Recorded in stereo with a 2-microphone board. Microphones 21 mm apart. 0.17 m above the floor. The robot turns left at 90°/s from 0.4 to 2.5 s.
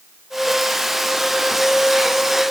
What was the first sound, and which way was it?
Only background noise.